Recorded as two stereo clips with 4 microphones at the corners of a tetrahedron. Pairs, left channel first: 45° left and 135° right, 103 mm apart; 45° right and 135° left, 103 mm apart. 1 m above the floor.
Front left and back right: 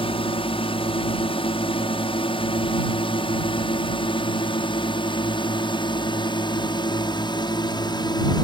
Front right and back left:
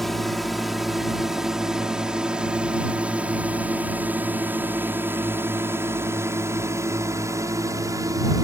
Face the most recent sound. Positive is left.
turn(degrees=85)